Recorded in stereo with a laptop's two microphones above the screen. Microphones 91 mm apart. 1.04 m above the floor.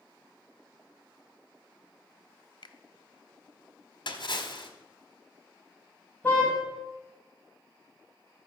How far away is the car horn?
About 4 m.